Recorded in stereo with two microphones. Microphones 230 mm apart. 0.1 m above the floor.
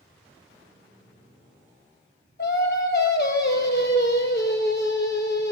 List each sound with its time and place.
2.4 s singing: 50° left (ahead or behind), 0.5 m